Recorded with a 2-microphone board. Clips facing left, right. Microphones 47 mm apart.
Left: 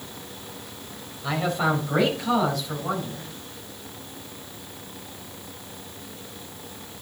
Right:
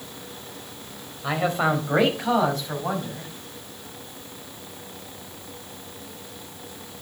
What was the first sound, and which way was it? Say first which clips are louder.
A man speaking: right 1 dB; 25° right (ahead or behind).